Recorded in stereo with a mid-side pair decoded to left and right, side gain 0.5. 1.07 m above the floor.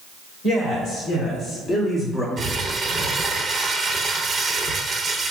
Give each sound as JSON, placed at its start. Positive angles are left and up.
{"t": 0.4, "sound": "a man speaking", "azimuth_deg": 70, "distance_m": 1.7}
{"t": 2.4, "sound": "crumpling", "azimuth_deg": -35, "distance_m": 0.7}